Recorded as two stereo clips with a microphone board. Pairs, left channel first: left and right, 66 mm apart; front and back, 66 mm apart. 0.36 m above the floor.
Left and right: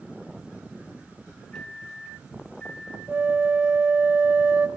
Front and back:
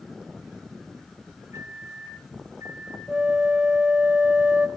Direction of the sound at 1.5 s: 170° left.